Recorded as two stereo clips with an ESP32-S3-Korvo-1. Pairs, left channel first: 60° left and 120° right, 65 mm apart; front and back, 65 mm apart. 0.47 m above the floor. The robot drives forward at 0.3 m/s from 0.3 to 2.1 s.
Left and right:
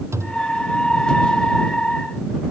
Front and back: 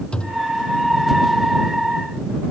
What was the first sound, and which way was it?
A thud, 75° right.